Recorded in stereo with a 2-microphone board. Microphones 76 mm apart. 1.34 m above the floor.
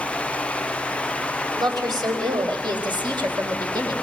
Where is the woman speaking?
65° right (ahead or behind), 5 m; by 4.0 s 75° right (ahead or behind), 4.5 m.